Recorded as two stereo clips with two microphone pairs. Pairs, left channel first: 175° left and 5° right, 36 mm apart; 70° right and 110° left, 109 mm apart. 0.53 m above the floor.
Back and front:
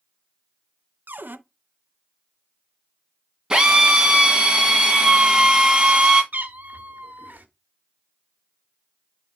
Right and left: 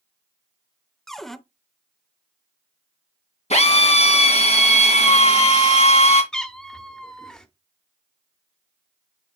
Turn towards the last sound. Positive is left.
turn(degrees=15)